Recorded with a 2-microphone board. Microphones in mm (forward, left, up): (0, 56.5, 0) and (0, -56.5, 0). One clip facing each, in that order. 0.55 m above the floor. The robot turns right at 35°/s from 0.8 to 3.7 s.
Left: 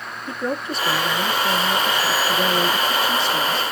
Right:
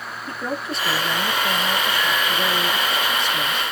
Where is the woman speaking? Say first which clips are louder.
Left 2 dB; straight ahead, 0.8 m; by 3.7 s 100° left, 0.8 m.